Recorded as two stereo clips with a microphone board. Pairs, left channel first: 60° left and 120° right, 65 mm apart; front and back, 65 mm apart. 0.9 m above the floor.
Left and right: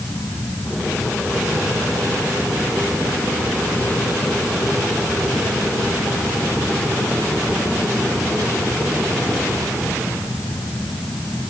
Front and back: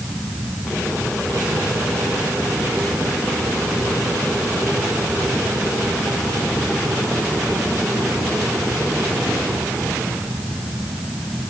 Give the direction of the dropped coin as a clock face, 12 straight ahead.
No dropped coin in this recording.